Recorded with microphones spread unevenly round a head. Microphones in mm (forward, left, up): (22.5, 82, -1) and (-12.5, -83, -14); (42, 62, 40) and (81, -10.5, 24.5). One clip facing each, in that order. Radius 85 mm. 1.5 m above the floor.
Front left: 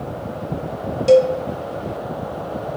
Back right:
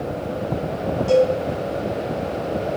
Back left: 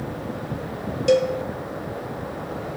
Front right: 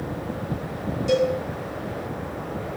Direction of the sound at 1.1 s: 95° left.